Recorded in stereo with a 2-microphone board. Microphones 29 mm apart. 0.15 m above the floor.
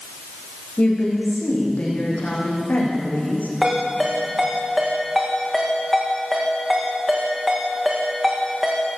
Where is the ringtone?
10° right (ahead or behind), 6.5 m.